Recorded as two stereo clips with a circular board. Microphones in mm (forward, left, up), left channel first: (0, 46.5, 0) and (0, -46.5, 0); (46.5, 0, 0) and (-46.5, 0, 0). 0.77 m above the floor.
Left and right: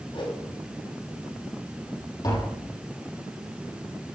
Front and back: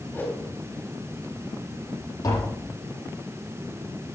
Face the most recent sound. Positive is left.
turn(degrees=45)